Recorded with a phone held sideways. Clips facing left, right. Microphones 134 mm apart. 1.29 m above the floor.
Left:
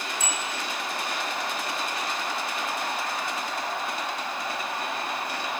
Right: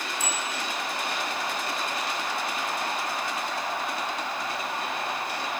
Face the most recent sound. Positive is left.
turn(degrees=20)  # may be behind; listen again after turning